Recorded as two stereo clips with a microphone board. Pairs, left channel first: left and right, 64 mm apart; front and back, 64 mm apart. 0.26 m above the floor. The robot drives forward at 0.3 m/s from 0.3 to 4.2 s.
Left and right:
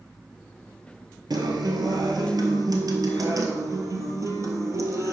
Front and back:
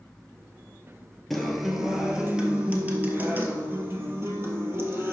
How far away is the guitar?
About 1.1 m.